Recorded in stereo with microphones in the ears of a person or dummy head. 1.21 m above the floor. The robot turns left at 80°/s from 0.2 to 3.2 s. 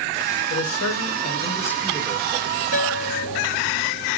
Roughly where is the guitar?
Left.